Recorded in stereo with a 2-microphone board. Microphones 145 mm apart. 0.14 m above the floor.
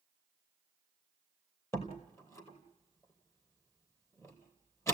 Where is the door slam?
20° left (ahead or behind), 3 m.